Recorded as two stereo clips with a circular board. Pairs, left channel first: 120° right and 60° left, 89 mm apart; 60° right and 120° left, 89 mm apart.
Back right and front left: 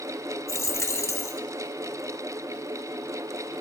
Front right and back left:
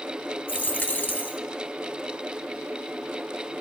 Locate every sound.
0.5 s a dropped coin: 110° right, 0.5 m